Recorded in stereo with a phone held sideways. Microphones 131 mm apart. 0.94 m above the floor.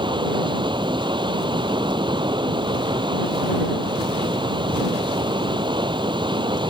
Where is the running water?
35° right (ahead or behind).